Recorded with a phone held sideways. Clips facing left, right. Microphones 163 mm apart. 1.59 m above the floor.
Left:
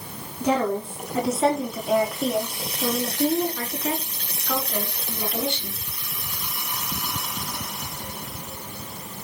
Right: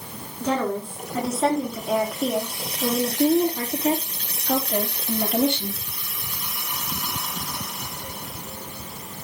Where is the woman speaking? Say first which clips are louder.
Left 2 dB; 10° left (ahead or behind), 5.5 m; by 5.8 s 60° right (ahead or behind), 3.5 m.